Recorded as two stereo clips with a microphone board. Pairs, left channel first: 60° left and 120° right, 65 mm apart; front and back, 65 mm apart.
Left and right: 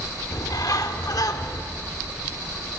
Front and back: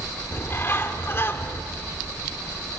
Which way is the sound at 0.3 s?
50° left.